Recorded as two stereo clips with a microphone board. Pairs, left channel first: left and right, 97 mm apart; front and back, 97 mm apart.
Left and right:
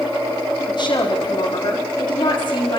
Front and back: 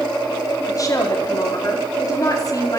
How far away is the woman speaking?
About 4.5 m.